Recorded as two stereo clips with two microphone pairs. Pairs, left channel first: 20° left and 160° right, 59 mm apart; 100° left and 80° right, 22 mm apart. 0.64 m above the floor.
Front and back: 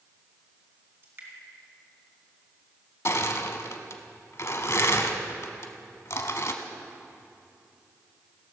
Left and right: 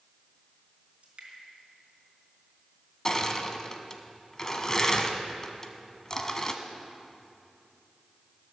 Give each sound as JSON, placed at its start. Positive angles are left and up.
{"t": 1.0, "sound": "dripping", "azimuth_deg": -110, "distance_m": 3.0}
{"t": 3.0, "sound": "crushing", "azimuth_deg": 40, "distance_m": 0.8}